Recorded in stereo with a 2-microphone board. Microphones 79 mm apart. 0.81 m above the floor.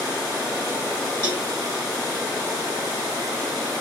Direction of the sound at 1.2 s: 70° right (ahead or behind).